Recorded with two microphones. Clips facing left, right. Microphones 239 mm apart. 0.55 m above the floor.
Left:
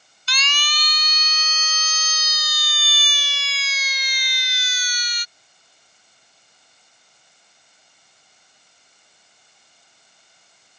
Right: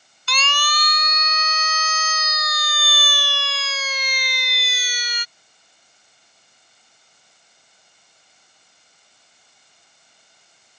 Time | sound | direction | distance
0.3 | a siren | 60° right (ahead or behind) | ?